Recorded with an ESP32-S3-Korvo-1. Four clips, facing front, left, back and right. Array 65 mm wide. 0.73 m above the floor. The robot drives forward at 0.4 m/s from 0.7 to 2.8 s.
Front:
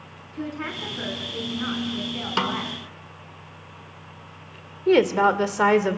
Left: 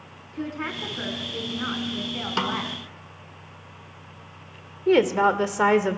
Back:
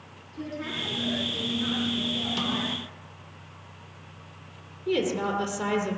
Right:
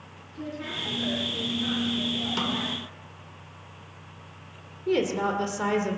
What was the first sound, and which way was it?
A woman speaking, 60° left.